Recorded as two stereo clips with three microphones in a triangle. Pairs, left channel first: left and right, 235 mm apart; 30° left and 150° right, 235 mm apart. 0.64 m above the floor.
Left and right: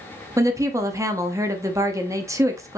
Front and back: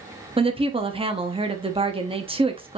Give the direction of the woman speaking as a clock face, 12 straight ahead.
5 o'clock.